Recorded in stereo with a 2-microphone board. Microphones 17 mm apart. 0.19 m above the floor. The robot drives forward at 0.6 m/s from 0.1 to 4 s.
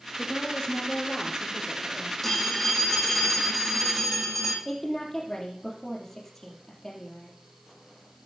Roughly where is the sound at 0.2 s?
Left.